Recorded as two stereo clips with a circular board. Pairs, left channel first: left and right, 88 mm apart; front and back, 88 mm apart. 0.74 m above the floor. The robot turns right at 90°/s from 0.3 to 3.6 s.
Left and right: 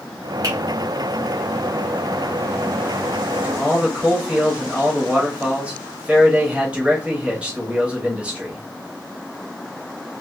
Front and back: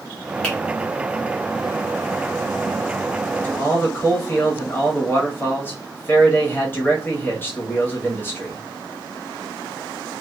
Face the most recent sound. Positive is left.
turn(degrees=-30)